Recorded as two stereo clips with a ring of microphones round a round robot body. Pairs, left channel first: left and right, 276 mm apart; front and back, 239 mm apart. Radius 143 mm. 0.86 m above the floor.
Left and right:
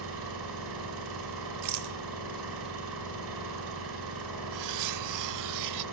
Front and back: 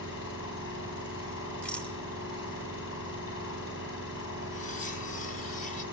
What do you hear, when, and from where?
0.0 s an engine running: 50° right, 4.5 m
1.6 s a rattle: 85° right, 0.8 m
4.5 s cutlery clinking: 65° right, 0.5 m